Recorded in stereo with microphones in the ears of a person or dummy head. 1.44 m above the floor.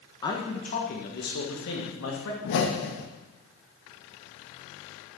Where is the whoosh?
65° left (ahead or behind), 1.0 m.